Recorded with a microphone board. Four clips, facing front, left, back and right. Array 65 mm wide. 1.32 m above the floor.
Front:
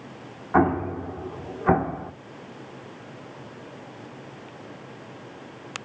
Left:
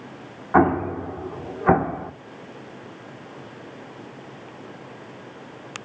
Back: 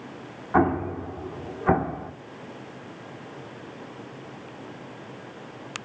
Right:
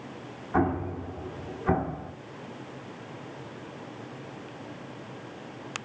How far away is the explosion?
About 1.1 m.